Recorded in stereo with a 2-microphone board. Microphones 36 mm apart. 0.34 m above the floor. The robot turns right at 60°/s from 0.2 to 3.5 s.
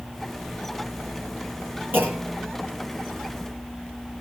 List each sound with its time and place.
1.9 s a clunk: 70° right, 9.5 m; by 2.5 s 35° right, 9.5 m